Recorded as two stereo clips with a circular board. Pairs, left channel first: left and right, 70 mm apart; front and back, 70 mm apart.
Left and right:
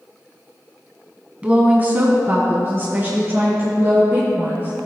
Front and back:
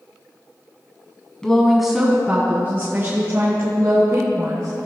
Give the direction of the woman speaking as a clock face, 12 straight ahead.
2 o'clock.